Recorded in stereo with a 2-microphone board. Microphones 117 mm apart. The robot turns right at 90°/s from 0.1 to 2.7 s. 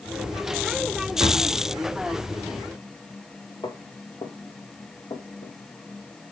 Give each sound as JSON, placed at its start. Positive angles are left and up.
{"t": 1.2, "sound": "a drawer", "side_deg": -20, "distance_m": 2.5}
{"t": 3.6, "sound": "footsteps", "side_deg": 35, "distance_m": 1.9}